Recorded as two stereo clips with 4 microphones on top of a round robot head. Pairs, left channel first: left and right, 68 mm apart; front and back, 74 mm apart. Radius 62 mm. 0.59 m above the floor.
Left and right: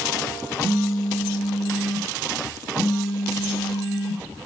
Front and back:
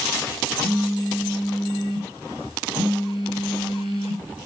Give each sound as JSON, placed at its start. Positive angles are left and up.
{"t": 0.6, "sound": "a phone buzzing", "azimuth_deg": -170, "distance_m": 2.5}